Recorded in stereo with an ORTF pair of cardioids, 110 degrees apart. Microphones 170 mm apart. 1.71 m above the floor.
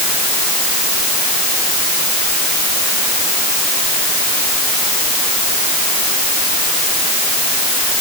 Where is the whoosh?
I don't hear a whoosh.